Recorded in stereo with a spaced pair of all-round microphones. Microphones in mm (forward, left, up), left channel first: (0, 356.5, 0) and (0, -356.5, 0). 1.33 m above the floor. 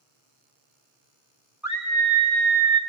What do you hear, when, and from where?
1.6 s a scream: centre (ahead or behind), 0.6 m; by 2.8 s 60° right (ahead or behind), 1.1 m